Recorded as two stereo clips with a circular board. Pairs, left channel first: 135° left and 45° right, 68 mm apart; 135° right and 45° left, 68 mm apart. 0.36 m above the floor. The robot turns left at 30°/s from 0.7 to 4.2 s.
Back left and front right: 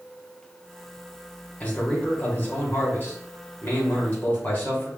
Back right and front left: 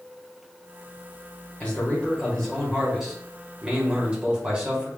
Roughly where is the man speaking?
Behind.